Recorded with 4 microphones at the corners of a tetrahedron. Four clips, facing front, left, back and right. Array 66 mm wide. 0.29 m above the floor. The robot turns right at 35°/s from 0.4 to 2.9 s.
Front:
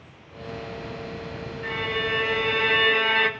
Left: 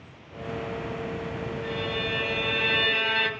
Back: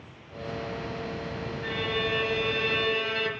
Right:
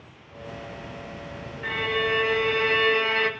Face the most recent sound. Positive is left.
turn(degrees=-15)